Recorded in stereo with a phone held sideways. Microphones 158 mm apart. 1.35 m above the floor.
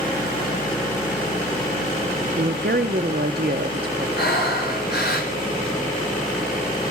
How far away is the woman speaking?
About 0.7 m.